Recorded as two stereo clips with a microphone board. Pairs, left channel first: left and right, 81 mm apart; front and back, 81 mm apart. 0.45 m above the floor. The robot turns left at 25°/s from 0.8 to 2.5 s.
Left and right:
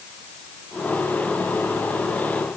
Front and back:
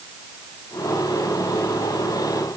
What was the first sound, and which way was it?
Only background noise.